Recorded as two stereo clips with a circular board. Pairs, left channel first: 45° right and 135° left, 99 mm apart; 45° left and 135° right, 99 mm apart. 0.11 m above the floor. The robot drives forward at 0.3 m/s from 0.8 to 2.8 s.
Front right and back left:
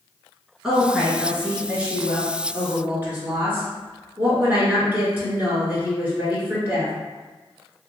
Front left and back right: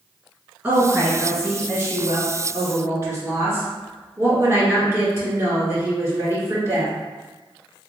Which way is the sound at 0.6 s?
160° right.